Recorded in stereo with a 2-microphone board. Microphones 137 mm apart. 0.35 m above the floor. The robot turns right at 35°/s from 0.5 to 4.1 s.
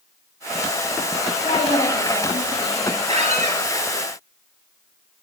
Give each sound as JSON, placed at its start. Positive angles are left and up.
{"t": 1.4, "sound": "a woman speaking", "azimuth_deg": 65, "distance_m": 2.5}
{"t": 3.1, "sound": "a squeak", "side_deg": -50, "distance_m": 2.5}